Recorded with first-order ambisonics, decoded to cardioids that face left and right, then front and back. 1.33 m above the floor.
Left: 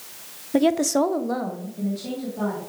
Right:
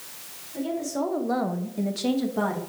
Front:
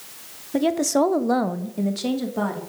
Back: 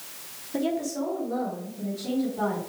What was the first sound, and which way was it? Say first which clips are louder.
A woman speaking: left 9 dB, front 8 dB; 70° left.